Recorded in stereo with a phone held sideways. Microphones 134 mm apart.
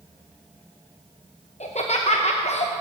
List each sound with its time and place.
1.6 s laughter: 55° left (ahead or behind), 0.9 m